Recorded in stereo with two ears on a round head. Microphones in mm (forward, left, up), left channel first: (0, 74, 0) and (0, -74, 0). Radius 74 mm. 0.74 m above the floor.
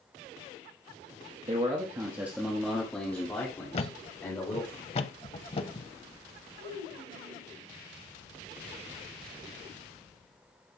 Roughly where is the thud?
Left.